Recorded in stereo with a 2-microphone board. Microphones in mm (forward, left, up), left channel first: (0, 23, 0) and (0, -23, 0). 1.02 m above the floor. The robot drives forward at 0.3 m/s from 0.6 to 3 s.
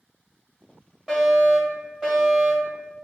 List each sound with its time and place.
1.1 s a fire alarm: 15° right (ahead or behind), 1.7 m